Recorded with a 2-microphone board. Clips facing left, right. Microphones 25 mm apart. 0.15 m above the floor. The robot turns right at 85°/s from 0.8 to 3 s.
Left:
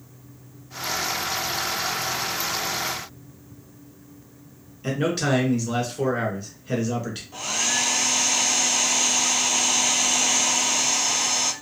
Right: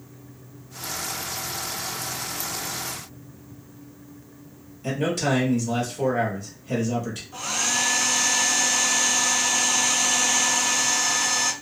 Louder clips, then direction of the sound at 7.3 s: Left 1 dB; 10° left (ahead or behind).